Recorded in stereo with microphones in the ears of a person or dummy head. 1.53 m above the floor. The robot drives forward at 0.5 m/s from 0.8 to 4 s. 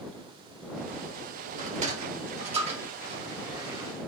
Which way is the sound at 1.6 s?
45° right (ahead or behind).